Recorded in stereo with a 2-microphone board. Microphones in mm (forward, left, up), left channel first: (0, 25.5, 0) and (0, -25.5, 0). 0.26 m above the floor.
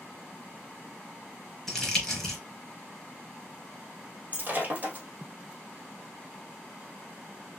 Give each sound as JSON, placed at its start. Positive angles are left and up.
{"t": 1.7, "sound": "crumpling", "side_deg": 5, "distance_m": 3.5}
{"t": 4.3, "sound": "breaking glass", "side_deg": -30, "distance_m": 2.5}